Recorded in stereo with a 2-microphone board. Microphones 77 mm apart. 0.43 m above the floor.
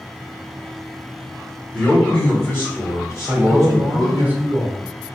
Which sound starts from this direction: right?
A man speaking, at 3.3 s.